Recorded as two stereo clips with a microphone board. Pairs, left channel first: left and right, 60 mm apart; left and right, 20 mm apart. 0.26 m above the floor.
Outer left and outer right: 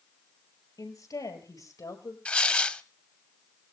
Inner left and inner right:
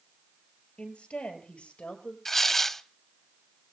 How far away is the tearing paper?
About 0.5 m.